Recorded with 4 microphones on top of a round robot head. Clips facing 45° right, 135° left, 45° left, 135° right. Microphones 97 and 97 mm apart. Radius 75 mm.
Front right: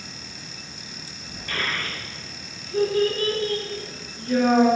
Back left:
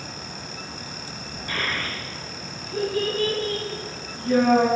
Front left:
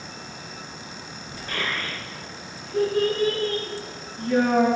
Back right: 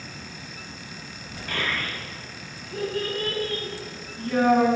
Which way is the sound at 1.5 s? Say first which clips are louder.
Even, even; 150° right.